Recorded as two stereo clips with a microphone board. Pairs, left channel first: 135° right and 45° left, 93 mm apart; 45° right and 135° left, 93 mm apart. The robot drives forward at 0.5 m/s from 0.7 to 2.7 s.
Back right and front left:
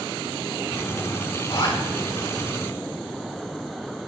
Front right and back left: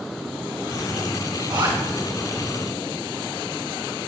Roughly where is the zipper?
Behind.